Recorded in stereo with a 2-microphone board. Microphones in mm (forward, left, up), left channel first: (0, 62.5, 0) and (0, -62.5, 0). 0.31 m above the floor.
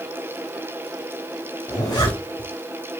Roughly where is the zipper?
Left.